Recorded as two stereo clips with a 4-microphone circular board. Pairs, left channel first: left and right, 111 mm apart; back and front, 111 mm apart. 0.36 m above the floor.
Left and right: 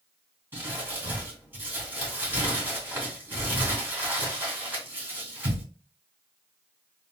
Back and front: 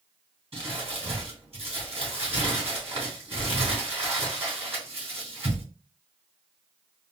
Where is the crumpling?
20° right, 2.5 m.